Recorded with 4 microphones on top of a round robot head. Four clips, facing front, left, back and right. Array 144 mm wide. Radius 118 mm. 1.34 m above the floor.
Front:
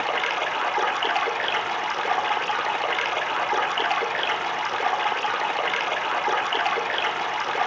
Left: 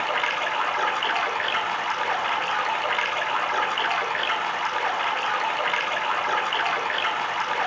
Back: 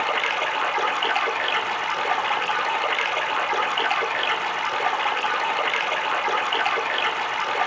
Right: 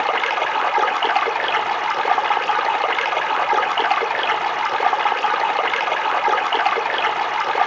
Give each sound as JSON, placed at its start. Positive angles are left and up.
{"t": 0.0, "sound": "running water", "azimuth_deg": -75, "distance_m": 1.6}